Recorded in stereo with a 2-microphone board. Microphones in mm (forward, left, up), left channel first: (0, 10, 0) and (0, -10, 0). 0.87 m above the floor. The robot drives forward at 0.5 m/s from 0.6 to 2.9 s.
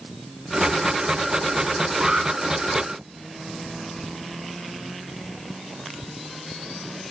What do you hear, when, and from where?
2.0 s an alarm: 50° right (ahead or behind), 3 m